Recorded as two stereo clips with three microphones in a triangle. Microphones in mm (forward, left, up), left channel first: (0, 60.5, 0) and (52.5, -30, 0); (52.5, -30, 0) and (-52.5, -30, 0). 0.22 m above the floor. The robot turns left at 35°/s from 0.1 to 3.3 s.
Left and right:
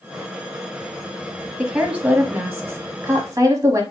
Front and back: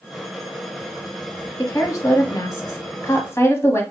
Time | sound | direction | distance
1.6 | a woman speaking | 20° left | 1.1 m